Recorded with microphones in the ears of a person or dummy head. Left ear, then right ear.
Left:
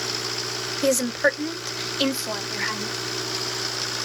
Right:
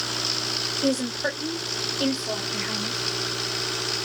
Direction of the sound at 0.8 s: 70° left (ahead or behind).